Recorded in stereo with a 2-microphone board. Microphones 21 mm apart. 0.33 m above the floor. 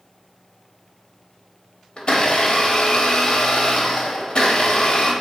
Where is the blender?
50° left (ahead or behind), 0.6 m.